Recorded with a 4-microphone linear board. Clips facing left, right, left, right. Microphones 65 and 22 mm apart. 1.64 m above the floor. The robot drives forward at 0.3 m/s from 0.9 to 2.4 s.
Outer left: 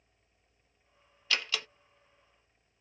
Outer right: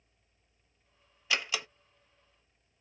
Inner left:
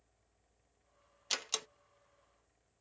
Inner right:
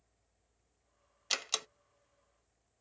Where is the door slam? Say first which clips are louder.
Outer right 1 dB, inner right 2 dB; 15° right (ahead or behind), 0.6 m.